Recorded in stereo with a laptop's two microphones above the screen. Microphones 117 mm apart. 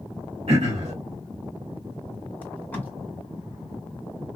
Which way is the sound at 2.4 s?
15° left (ahead or behind).